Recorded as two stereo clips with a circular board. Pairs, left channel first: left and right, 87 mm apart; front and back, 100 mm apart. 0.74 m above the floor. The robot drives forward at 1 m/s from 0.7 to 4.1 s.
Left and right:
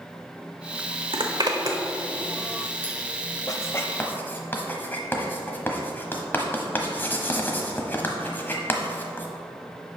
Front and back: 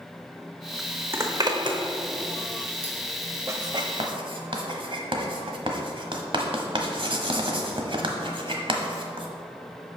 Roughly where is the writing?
Behind left.